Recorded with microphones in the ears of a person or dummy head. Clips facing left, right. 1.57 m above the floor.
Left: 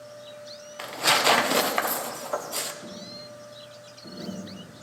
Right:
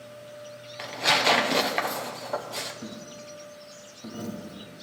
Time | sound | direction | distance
0.8 | tearing paper | 5° left (ahead or behind) | 0.8 m
2.8 | a dropped coin | 60° right (ahead or behind) | 1.7 m